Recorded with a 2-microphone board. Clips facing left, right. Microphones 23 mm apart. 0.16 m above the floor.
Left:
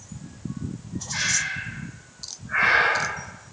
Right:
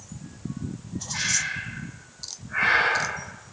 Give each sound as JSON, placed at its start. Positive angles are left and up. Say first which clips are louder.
{"t": 1.1, "sound": "breathing", "louder": "left 1 dB", "side_deg": 50, "distance_m": 3.5}